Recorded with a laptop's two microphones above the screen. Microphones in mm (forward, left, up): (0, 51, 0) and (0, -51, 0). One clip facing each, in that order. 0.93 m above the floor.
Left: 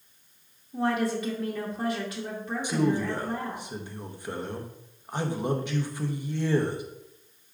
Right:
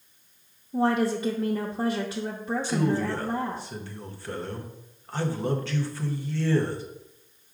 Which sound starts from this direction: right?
A woman speaking, at 0.7 s.